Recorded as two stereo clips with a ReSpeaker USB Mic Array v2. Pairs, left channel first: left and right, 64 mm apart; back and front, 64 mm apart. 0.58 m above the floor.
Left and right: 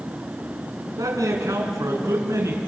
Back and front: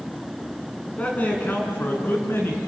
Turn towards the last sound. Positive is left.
turn(degrees=-130)